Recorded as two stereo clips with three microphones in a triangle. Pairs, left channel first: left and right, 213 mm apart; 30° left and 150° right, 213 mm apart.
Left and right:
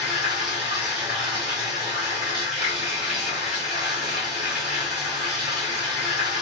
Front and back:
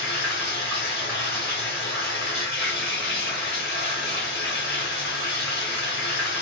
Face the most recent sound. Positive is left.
turn(degrees=-5)